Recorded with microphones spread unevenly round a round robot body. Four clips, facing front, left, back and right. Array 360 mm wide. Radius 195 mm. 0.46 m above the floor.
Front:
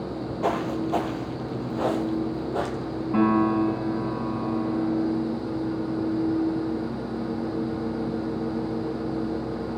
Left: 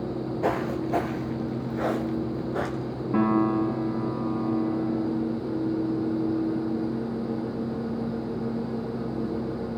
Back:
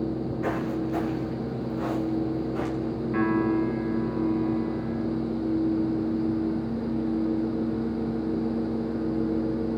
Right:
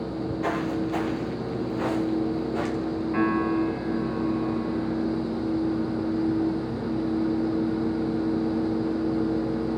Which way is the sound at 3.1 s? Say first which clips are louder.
Left 2 dB, front 3 dB; 50° left.